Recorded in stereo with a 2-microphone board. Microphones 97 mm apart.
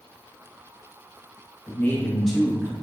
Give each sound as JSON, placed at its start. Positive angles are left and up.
{"t": 1.7, "sound": "a man speaking", "side_deg": 20, "distance_m": 0.7}